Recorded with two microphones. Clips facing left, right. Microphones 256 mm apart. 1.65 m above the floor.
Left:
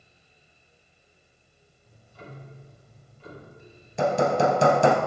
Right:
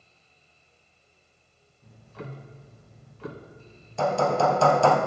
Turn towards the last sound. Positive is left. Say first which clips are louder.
# left 2 dB
turn(degrees=20)  # may be behind; listen again after turning